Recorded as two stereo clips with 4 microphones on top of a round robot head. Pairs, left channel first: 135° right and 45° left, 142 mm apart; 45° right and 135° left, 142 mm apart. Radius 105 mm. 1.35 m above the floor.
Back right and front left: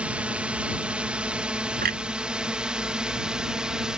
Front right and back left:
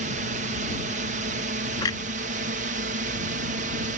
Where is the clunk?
20° left.